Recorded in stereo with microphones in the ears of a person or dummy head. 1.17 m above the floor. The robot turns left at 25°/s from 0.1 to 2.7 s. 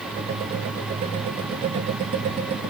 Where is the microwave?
No microwave in this recording.